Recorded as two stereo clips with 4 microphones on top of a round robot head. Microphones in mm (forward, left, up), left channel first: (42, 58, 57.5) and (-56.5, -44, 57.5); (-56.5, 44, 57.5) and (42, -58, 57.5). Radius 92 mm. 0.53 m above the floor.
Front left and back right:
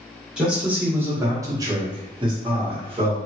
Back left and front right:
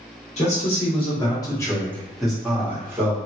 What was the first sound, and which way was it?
A man speaking, 145° left.